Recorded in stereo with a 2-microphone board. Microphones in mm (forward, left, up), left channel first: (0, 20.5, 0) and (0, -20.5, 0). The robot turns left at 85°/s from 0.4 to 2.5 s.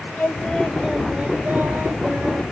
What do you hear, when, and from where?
0.2 s singing: 40° left, 1.2 m; by 2.4 s 135° right, 1.2 m